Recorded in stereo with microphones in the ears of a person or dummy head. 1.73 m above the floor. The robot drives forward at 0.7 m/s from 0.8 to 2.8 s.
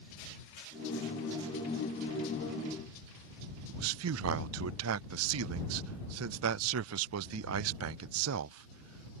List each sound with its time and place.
3.7 s a man speaking: 80° right